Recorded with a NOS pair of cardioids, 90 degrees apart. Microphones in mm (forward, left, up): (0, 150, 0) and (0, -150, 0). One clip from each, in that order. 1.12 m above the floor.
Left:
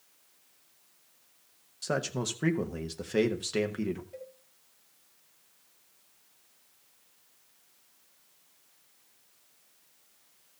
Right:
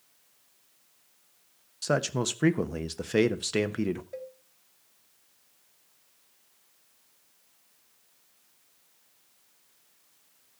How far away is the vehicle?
No vehicle in this recording.